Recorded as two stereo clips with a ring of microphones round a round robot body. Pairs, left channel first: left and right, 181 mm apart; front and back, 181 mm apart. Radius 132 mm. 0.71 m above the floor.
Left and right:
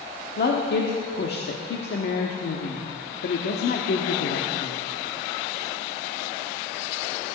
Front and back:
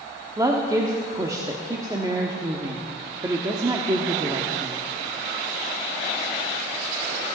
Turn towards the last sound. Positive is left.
turn(degrees=110)